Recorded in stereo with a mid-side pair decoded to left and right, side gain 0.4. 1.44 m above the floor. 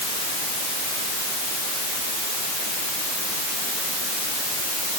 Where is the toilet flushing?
No toilet flushing in this recording.